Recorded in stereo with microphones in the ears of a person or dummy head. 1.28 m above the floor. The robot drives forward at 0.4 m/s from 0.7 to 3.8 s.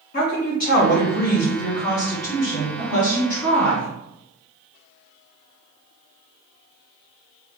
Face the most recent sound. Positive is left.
turn(degrees=10)  # may be behind; listen again after turning